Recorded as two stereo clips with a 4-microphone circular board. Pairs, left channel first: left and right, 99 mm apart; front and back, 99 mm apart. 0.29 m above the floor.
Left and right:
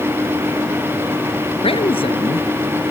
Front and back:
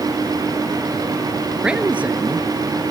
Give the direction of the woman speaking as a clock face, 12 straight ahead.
9 o'clock.